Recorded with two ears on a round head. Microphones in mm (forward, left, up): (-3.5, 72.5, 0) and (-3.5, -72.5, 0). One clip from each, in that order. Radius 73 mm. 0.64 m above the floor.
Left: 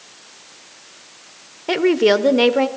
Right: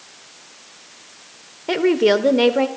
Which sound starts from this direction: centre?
A woman speaking, at 1.7 s.